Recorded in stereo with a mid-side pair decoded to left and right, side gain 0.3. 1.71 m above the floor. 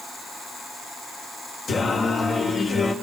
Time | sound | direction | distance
1.7 | singing | 70° left | 3.5 m